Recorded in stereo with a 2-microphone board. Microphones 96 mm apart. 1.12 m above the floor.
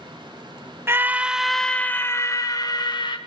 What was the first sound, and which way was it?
A scream, 25° right (ahead or behind).